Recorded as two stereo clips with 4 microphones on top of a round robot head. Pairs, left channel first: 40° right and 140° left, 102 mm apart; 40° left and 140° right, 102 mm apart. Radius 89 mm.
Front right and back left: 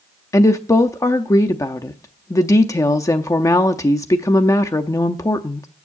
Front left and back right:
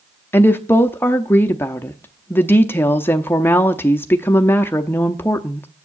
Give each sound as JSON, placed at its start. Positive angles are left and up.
{"t": 0.3, "sound": "a woman speaking", "azimuth_deg": -15, "distance_m": 0.7}